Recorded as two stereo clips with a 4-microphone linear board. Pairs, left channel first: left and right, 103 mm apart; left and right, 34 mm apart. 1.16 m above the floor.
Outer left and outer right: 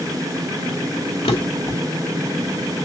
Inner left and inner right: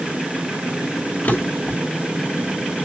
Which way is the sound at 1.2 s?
70° left (ahead or behind).